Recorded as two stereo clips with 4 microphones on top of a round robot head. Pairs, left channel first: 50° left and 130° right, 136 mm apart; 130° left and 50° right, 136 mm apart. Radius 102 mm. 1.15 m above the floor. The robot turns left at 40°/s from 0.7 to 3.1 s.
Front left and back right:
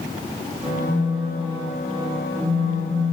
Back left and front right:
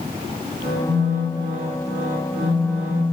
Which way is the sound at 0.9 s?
35° right.